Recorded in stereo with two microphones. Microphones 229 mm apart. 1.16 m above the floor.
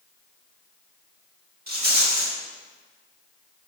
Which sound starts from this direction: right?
A rattle, at 1.7 s.